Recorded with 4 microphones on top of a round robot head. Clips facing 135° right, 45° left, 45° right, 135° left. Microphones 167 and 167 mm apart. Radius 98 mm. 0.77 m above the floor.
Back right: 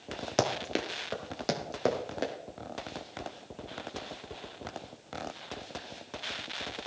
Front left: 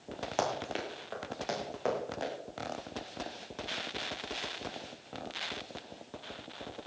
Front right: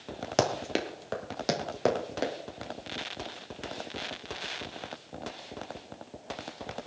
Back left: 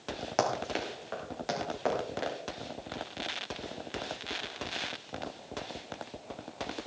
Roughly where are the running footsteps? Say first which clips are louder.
Back right 4 dB, front right 3 dB; right.